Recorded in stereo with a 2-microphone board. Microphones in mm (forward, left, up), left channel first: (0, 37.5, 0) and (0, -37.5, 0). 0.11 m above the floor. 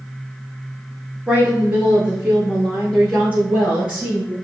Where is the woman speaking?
20° right (ahead or behind), 1.3 m; by 4.3 s 25° right (ahead or behind), 3 m.